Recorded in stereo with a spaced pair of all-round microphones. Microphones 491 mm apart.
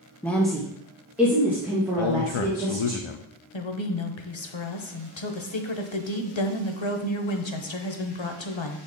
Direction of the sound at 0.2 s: 5° left (ahead or behind).